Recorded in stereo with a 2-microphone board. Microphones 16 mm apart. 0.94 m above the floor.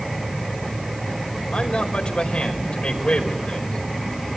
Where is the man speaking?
75° left (ahead or behind), 5 m.